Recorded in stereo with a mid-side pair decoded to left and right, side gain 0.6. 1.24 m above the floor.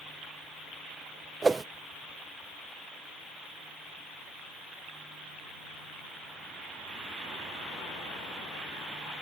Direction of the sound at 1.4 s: 20° right.